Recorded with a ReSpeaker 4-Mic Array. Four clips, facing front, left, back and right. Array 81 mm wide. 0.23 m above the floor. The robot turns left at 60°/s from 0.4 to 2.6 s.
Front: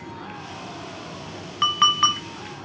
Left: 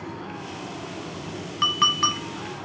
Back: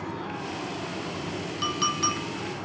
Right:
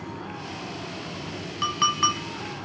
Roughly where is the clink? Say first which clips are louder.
Even, front 8 dB; ahead.